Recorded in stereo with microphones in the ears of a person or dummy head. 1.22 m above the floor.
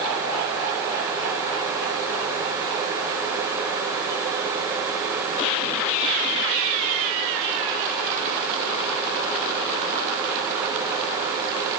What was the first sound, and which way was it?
Only background noise.